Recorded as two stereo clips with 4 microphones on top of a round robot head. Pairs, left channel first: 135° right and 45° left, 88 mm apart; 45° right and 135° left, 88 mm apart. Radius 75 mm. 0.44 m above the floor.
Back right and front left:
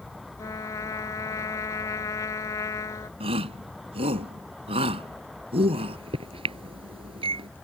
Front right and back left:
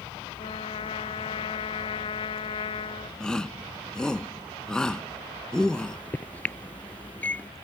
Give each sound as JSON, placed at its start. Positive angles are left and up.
{"t": 0.4, "sound": "a trumpet", "azimuth_deg": -75}
{"t": 3.2, "sound": "a shout", "azimuth_deg": 35}
{"t": 5.7, "sound": "a microwave", "azimuth_deg": 25}